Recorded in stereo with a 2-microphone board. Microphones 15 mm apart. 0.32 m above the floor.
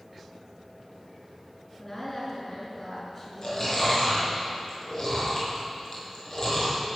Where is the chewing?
45° left (ahead or behind), 5 m.